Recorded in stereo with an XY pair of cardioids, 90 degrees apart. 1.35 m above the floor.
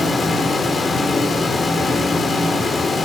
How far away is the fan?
About 1.7 m.